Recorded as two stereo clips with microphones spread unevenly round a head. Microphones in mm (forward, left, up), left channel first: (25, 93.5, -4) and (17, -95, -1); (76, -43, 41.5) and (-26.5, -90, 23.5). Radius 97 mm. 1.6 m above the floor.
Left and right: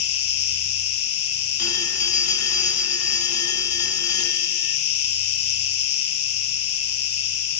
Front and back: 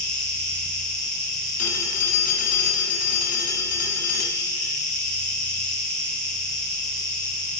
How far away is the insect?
About 8 m.